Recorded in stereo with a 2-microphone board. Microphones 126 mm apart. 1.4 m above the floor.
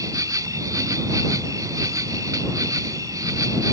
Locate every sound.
0.0 s an insect: 30° right (ahead or behind)